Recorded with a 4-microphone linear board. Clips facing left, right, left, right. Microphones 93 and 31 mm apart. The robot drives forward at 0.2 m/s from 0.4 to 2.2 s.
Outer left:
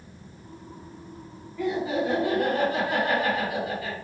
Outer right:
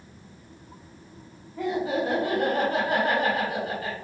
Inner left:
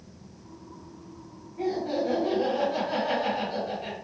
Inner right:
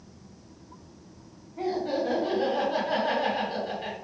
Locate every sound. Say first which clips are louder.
1.6 s laughter: even, even; 50° right (ahead or behind), 2.5 m